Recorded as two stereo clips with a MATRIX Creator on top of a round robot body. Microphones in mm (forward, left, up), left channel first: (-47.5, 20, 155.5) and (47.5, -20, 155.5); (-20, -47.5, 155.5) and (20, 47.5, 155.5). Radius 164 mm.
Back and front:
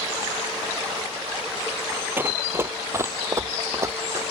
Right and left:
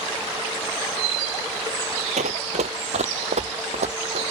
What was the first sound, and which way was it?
Running footsteps, 50° left.